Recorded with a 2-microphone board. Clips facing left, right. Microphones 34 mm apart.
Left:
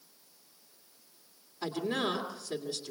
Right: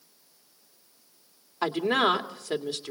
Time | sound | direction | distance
1.6 | a woman speaking | 70° right (ahead or behind) | 2 m